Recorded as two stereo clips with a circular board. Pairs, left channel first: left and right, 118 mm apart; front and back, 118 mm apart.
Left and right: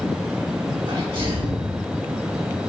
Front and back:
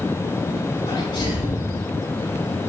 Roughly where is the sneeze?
Ahead right.